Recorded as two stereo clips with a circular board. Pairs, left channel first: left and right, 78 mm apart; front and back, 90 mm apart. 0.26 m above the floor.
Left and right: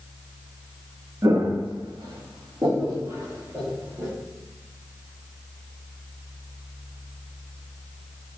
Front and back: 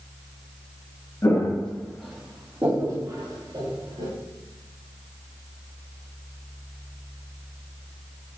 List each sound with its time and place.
1.2 s footsteps: 50° right, 1.1 m; by 4.1 s 150° right, 2.5 m